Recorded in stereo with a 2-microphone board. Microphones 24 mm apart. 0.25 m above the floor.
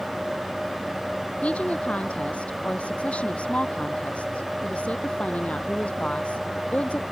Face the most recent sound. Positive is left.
turn(degrees=60)  # may be behind; listen again after turning